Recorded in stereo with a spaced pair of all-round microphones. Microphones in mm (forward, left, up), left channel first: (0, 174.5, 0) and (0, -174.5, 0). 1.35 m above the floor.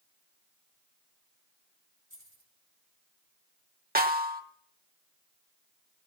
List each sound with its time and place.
2.1 s keys jangling: 35° right (ahead or behind), 4.5 m
4.0 s a snare drum: 25° right (ahead or behind), 1.0 m